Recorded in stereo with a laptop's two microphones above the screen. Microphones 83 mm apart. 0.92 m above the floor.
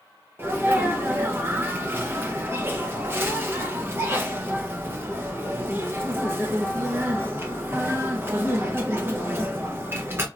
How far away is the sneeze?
About 0.6 m.